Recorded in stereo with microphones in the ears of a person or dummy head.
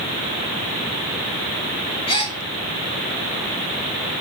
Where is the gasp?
25° left (ahead or behind), 1.7 m.